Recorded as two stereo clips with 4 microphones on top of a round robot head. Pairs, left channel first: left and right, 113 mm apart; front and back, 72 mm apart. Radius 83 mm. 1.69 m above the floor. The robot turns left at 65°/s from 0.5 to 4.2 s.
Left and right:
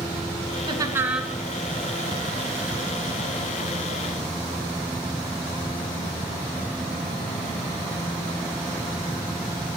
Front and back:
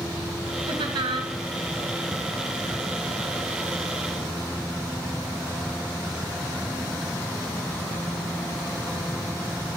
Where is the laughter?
140° right, 2.5 m; by 1.3 s 175° left, 2.5 m.